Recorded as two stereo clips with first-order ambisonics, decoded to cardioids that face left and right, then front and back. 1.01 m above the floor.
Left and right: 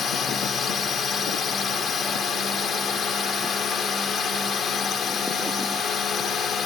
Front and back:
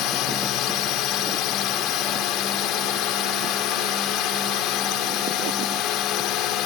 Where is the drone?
30° left.